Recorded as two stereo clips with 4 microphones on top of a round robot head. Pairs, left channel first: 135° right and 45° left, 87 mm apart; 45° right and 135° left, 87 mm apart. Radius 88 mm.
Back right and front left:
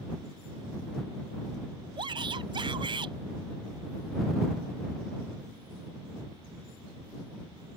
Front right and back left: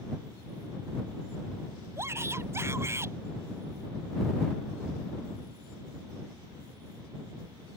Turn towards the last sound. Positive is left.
turn(degrees=75)